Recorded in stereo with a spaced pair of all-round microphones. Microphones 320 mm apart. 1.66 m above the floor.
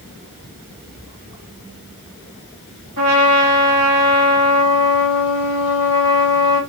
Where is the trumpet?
70° right (ahead or behind), 1.6 m.